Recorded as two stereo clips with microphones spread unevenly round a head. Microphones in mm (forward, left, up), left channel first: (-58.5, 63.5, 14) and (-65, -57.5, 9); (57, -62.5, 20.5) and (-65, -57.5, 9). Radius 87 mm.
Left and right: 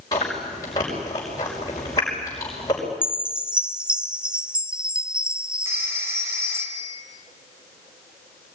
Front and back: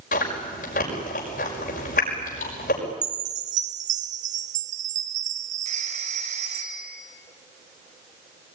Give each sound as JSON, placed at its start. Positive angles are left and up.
{"t": 0.1, "sound": "chewing", "azimuth_deg": 15, "distance_m": 6.0}
{"t": 3.0, "sound": "a chime", "azimuth_deg": -175, "distance_m": 1.2}
{"t": 5.7, "sound": "a phone ringing", "azimuth_deg": -160, "distance_m": 6.0}